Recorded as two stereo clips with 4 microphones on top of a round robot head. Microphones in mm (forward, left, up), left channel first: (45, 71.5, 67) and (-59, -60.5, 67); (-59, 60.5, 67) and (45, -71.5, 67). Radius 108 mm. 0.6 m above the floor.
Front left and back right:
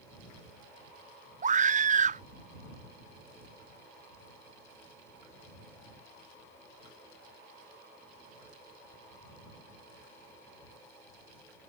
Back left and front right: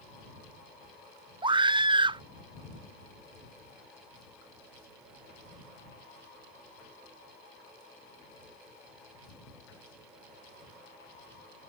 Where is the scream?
105° right.